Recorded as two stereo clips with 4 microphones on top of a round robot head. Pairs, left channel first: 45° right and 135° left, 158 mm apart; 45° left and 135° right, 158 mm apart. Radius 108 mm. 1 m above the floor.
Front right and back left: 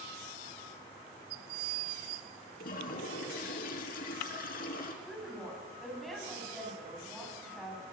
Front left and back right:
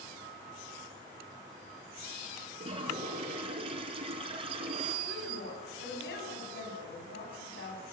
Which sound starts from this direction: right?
A toilet flushing, at 2.6 s.